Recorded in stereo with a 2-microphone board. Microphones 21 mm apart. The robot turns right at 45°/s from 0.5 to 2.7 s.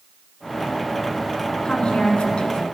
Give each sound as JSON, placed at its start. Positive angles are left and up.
{"t": 1.6, "sound": "a woman speaking", "azimuth_deg": 60, "distance_m": 1.5}